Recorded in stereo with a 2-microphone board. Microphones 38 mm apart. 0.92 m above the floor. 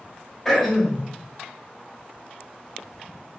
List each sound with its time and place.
0.5 s throat clearing: 10° left (ahead or behind), 1.4 m